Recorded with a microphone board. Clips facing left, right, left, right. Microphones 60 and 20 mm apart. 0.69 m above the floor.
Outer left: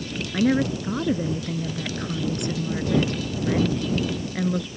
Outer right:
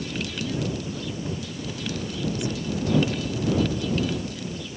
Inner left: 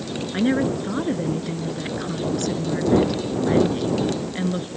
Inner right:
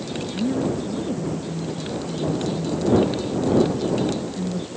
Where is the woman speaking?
65° left (ahead or behind).